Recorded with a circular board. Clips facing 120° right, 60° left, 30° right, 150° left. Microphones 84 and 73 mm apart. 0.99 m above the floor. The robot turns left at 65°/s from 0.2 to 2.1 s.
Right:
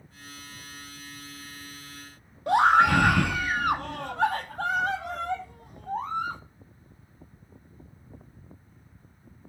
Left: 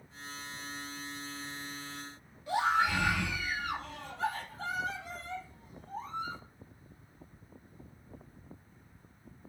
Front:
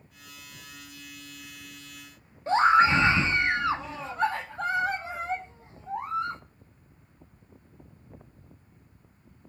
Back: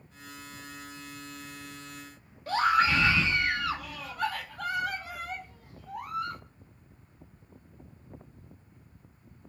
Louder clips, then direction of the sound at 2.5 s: Right 10 dB, front 5 dB; 95° right.